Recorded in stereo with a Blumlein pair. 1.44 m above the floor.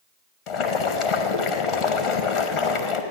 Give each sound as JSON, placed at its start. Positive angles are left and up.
{"t": 0.5, "sound": "boiling", "azimuth_deg": 35, "distance_m": 1.3}